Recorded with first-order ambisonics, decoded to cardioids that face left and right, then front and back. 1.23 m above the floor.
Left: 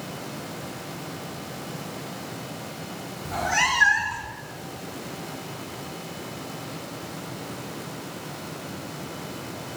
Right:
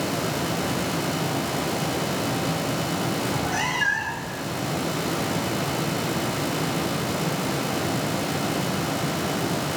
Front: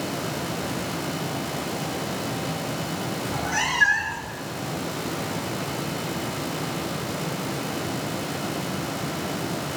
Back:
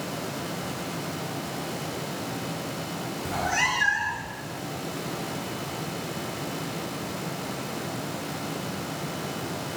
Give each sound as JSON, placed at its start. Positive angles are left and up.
{"t": 3.2, "sound": "a cat meowing", "azimuth_deg": 155, "distance_m": 0.6}